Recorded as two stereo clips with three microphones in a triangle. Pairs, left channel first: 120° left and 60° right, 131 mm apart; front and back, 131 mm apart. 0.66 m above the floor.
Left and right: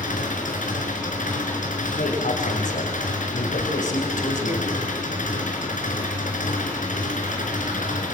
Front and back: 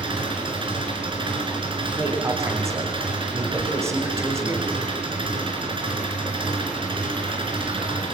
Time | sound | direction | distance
0.0 | an engine running | 130° left | 3.5 m
2.0 | a man speaking | 110° left | 3 m